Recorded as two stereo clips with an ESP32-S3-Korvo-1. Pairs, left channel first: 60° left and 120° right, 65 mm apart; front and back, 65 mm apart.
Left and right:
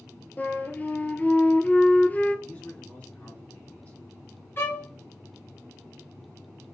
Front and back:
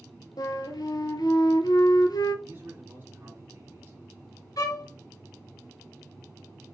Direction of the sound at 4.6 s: 10° left.